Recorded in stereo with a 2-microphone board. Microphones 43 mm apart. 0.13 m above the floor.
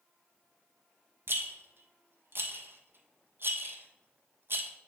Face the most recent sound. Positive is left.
turn(degrees=-60)  # may be behind; listen again after turning